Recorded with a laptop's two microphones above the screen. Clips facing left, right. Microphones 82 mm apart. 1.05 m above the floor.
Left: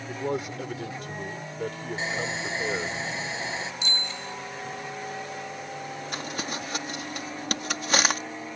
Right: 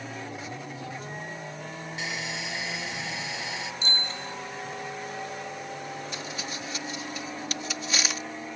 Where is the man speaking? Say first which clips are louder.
Left 7 dB; 80° left.